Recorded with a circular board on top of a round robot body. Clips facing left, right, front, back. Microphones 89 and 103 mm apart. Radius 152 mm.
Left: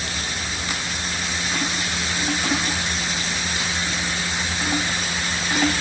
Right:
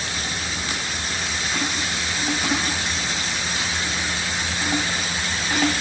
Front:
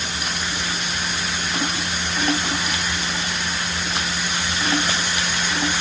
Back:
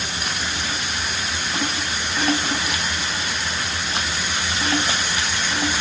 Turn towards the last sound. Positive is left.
No sound to turn to.